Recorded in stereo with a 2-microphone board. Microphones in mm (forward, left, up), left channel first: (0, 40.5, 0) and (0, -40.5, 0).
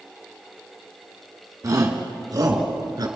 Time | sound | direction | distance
1.6 | a shout | 50° right (ahead or behind) | 2.5 m